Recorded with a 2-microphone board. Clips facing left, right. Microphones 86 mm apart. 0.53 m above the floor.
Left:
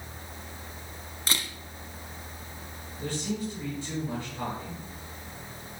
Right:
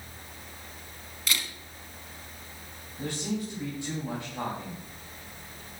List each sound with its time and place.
1.3 s a camera shutter: 35° left (ahead or behind), 1.1 m
3.0 s a man speaking: 70° right (ahead or behind), 4 m